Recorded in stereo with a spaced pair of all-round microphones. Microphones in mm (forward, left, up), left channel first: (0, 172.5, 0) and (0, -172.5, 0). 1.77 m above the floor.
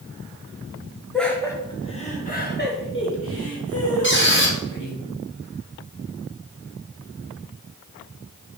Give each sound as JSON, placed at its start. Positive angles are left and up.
{"t": 1.1, "sound": "laughter", "side_deg": 0, "distance_m": 1.6}
{"t": 4.0, "sound": "a squeak", "side_deg": 35, "distance_m": 1.6}